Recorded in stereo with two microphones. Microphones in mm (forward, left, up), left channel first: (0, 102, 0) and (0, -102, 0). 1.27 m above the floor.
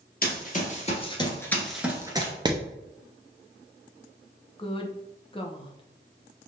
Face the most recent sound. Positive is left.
turn(degrees=25)  # may be behind; listen again after turning